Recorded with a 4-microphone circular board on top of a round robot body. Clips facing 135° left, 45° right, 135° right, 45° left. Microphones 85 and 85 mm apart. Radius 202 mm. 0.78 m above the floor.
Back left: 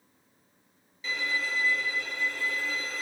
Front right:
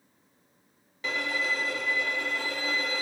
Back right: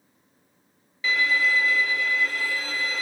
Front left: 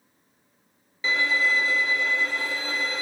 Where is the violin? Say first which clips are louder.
Front right 2 dB, back right 1 dB; 20° right, 1.7 m.